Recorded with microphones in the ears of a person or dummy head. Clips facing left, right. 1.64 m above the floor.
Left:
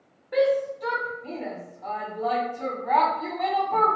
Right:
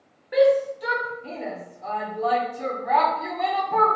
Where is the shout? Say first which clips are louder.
Right 4 dB; 5° right (ahead or behind), 0.7 m.